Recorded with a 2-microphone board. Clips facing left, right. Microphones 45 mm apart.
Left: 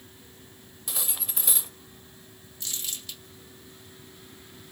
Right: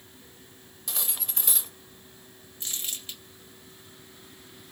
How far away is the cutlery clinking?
About 0.5 m.